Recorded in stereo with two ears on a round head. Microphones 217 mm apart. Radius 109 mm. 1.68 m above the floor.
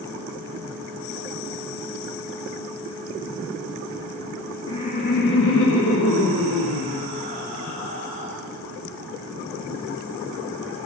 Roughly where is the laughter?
Centre.